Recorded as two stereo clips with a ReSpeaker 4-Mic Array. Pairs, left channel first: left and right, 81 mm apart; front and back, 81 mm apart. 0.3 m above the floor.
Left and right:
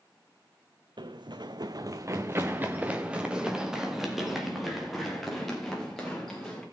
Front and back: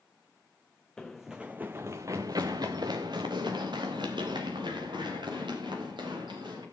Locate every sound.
1.0 s running footsteps: 80° right, 1.1 m; by 6.6 s 175° left, 5 m